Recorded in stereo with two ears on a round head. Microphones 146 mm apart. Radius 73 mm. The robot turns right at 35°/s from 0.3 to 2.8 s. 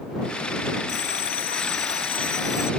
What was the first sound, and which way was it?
A bell, 100° left.